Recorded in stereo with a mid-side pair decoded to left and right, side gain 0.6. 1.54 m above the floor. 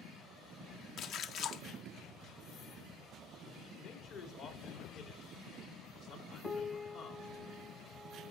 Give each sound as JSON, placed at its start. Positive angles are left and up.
{"t": 1.0, "sound": "a splash", "azimuth_deg": 55, "distance_m": 0.9}
{"t": 3.8, "sound": "a man speaking", "azimuth_deg": 60, "distance_m": 4.5}
{"t": 6.4, "sound": "a piano", "azimuth_deg": 0, "distance_m": 0.9}